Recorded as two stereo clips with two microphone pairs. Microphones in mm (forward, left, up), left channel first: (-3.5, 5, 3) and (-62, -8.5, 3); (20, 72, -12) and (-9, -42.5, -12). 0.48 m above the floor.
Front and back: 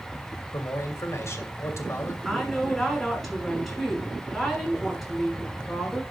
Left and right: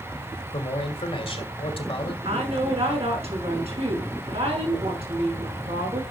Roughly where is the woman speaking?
Right.